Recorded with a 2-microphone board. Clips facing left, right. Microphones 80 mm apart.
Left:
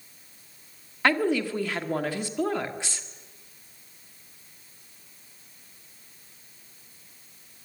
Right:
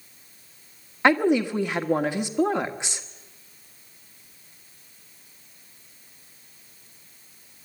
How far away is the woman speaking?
About 1.3 m.